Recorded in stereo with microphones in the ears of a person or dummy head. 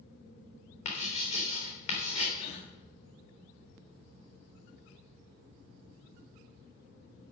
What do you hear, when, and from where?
0.8 s writing: 45° left (ahead or behind), 3.5 m
2.4 s a gasp: 35° left (ahead or behind), 2 m